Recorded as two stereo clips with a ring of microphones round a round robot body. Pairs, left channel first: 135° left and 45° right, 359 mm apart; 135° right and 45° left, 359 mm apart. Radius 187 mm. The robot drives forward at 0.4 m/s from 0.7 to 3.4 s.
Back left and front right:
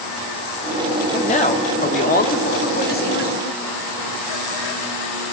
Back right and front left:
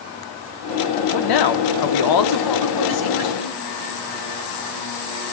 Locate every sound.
1.1 s a man speaking: 155° right, 2 m; by 3.5 s 160° right, 3 m